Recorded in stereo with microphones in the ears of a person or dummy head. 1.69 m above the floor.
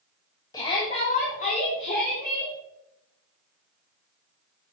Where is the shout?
25° left (ahead or behind), 2.5 m; by 2.5 s 65° left (ahead or behind), 4 m.